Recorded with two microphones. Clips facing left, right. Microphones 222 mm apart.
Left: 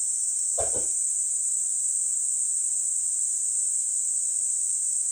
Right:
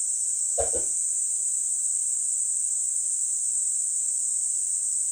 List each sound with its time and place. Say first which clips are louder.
0.6 s a whoosh: right 3 dB; 20° right (ahead or behind), 3 m